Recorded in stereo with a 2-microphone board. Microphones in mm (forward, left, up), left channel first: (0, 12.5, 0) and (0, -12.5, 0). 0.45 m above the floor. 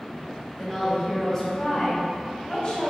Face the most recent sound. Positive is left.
turn(degrees=45)  # may be behind; listen again after turning